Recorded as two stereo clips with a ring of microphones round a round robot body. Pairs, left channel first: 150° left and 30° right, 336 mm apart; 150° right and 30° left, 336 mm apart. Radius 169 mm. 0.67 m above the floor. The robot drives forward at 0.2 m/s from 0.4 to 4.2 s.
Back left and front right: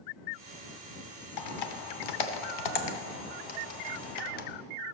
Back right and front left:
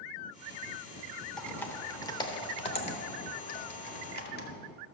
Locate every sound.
1.4 s typing on a keyboard: 120° left, 0.8 m; by 4.5 s 145° left, 1.2 m